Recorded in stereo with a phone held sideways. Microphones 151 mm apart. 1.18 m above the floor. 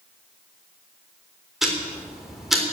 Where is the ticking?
Centre (ahead or behind), 3.5 m.